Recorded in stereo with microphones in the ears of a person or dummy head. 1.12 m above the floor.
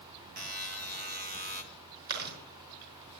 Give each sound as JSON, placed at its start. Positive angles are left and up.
{"t": 0.4, "sound": "a buzzer", "side_deg": -40, "distance_m": 1.8}
{"t": 2.1, "sound": "chewing", "side_deg": -55, "distance_m": 5.0}